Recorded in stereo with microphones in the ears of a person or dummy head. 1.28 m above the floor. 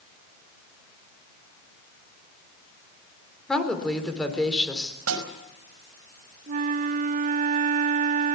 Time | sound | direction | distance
3.5 | a woman speaking | centre (ahead or behind) | 3.5 m
5.1 | a snare drum | 85° right | 5 m
6.5 | a flute | 45° right (ahead or behind) | 0.7 m